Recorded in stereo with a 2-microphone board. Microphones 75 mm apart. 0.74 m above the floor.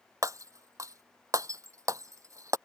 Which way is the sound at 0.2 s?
45° right (ahead or behind).